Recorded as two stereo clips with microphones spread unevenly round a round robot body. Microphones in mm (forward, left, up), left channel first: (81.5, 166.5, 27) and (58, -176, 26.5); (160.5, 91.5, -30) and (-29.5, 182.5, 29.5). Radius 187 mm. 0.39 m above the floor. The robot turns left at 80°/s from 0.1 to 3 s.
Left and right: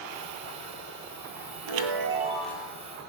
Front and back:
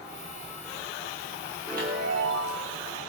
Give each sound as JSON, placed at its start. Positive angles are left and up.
{"t": 1.7, "sound": "a chime", "azimuth_deg": -120, "distance_m": 1.5}